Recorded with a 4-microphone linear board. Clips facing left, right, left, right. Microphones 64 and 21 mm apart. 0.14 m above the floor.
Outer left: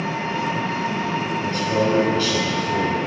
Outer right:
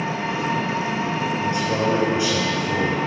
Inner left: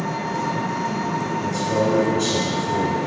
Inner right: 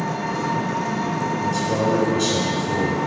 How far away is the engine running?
About 1.5 m.